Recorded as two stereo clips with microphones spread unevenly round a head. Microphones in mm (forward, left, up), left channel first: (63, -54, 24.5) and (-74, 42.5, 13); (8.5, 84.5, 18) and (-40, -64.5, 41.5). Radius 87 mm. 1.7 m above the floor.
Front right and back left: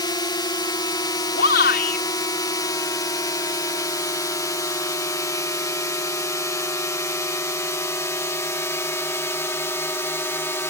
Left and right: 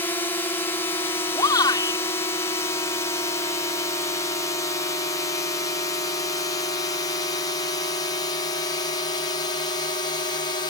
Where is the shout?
Straight ahead.